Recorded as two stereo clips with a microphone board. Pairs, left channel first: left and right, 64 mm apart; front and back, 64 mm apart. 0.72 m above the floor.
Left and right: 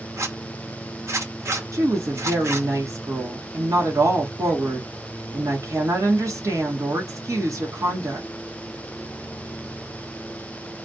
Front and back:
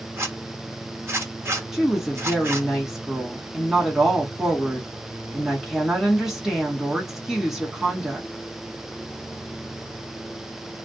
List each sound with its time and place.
0.2 s a zipper: 130° right, 1.0 m
1.7 s a woman speaking: 100° right, 1.5 m